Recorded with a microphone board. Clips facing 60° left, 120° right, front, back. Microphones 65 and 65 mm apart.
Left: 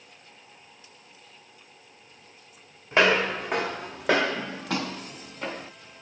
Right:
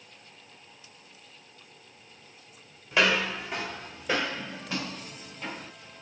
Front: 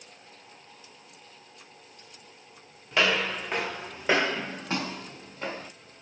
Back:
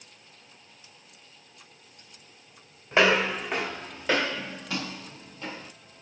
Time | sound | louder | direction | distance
2.9 | footsteps | left 4 dB, back 4 dB | 120° left | 0.7 m